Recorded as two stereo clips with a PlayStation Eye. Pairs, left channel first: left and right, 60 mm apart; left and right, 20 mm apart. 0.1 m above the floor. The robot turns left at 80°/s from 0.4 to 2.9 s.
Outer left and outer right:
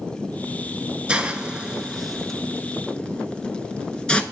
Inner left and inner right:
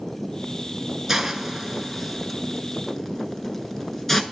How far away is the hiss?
About 0.6 m.